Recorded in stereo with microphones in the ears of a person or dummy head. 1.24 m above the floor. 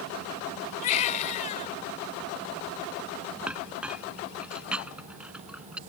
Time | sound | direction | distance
0.8 | a baby crying | 35° left (ahead or behind) | ?
3.5 | a clink | centre (ahead or behind) | ?